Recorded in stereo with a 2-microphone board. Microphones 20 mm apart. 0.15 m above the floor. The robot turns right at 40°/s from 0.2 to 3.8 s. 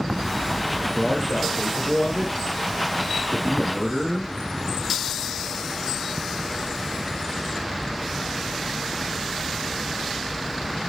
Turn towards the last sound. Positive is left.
turn(degrees=175)